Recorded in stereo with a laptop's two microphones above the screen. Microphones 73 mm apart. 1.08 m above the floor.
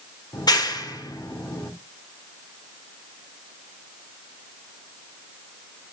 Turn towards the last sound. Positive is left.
turn(degrees=80)